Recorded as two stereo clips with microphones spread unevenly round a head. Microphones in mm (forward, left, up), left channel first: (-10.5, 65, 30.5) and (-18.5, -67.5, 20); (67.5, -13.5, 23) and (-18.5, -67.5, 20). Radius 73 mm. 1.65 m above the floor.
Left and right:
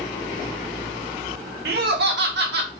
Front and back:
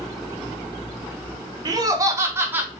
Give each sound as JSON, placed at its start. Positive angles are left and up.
{"t": 1.6, "sound": "laughter", "azimuth_deg": -100, "distance_m": 1.4}